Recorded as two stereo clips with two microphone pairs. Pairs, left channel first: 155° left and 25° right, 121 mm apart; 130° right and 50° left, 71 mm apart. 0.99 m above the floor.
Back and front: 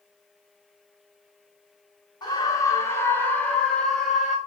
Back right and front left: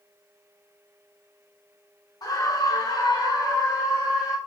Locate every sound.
2.2 s a scream: 150° right, 3 m; by 4.4 s 110° right, 4 m